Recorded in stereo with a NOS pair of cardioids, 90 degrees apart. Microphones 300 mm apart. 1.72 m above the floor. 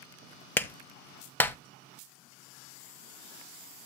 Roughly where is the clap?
Ahead.